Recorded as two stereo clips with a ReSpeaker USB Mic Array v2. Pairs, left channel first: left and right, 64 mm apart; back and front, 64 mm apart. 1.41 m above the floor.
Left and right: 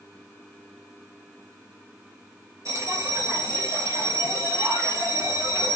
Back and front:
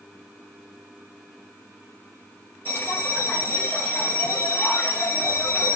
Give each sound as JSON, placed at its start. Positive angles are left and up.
{"t": 2.6, "sound": "a bell", "azimuth_deg": -125, "distance_m": 0.9}